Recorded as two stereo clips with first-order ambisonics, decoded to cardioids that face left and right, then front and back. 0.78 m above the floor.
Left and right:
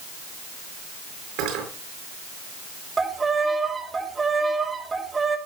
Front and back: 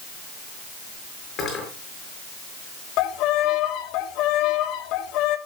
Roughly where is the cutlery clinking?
Ahead right.